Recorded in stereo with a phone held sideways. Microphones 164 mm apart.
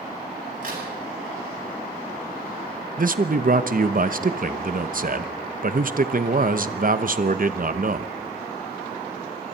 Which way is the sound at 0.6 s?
60° right (ahead or behind).